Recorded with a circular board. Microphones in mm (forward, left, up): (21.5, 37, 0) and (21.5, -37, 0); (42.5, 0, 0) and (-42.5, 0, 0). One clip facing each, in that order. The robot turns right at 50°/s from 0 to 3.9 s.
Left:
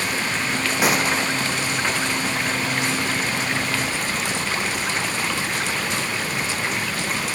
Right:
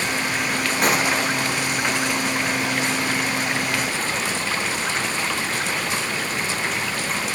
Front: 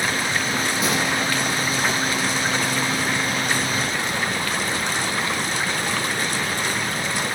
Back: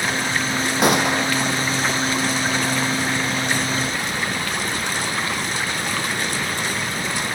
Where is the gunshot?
175° left, 1.8 m; by 1.5 s 150° right, 1.8 m.